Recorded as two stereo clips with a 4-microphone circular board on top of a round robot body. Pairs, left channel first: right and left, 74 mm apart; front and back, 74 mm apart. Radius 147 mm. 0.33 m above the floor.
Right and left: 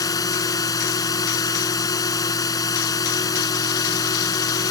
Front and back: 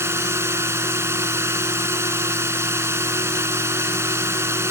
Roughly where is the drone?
Behind right.